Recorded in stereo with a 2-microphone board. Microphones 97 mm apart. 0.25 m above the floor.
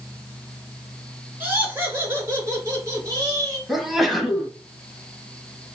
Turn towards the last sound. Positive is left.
turn(degrees=0)  # may be behind; listen again after turning